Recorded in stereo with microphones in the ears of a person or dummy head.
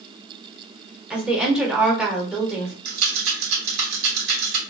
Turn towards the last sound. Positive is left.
turn(degrees=-75)  # may be behind; listen again after turning